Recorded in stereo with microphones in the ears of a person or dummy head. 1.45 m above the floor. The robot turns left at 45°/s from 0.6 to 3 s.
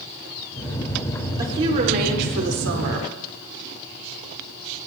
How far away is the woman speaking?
About 5 m.